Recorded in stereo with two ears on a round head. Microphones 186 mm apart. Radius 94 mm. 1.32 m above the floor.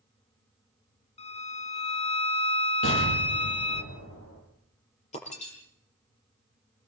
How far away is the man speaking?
No man speaking in this recording.